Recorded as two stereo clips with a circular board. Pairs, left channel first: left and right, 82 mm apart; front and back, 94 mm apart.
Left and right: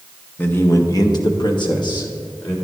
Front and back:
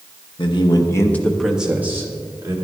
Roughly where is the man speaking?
Ahead left.